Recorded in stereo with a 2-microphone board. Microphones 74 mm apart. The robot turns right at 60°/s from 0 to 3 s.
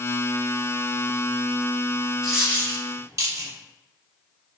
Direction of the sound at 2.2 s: Centre (ahead or behind).